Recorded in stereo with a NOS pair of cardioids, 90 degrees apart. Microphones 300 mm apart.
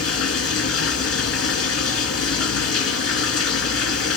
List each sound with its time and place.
0.0 s running water: 50° left, 2.5 m